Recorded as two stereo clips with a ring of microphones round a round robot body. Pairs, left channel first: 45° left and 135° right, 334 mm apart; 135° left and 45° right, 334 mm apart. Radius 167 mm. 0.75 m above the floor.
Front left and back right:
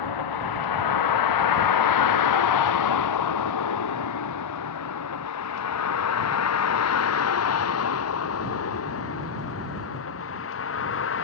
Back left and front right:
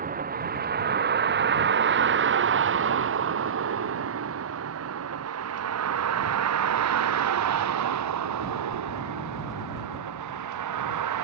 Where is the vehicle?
20° left; by 11.2 s 10° right.